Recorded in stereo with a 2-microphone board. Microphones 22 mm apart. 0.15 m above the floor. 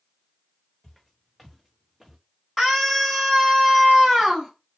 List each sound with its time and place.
0.8 s footsteps: 10° left (ahead or behind), 1.7 m; by 2.2 s 15° right (ahead or behind), 1.3 m
2.6 s a scream: 5° left (ahead or behind), 1.2 m